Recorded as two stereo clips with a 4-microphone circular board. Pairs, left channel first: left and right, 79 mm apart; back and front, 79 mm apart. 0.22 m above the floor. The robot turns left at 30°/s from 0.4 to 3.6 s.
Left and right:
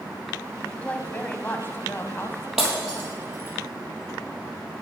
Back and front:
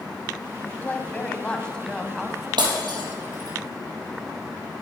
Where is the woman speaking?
145° left, 1.1 m; by 2.5 s 90° left, 1.1 m.